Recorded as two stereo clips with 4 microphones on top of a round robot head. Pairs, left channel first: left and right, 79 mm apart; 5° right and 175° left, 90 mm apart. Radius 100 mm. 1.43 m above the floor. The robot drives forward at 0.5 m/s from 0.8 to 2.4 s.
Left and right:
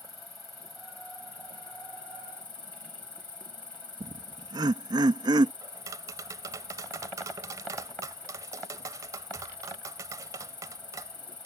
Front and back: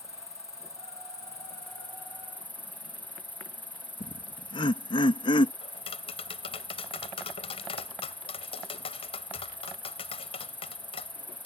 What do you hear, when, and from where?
0.0 s an insect: 50° left; by 11.5 s 65° left
4.0 s laughter: 50° right
5.6 s tapping: 35° right